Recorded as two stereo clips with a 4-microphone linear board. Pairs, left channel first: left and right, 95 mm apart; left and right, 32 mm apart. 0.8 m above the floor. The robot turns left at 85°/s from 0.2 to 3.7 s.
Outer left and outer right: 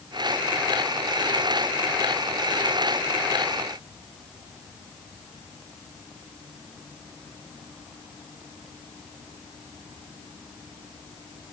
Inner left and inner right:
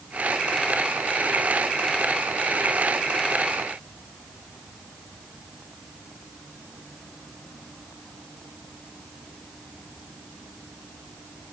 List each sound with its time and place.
Only background noise.